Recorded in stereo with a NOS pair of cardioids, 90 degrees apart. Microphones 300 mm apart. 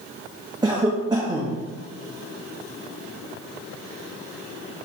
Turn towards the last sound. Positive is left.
turn(degrees=-15)